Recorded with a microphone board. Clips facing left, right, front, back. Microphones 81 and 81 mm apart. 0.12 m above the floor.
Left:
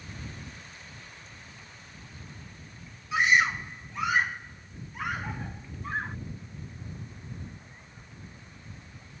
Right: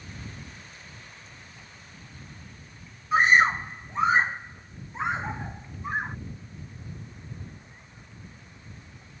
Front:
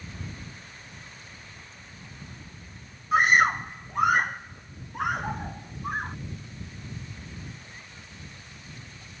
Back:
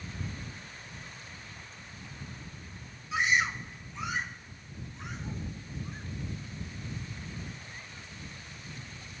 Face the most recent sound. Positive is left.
turn(degrees=-20)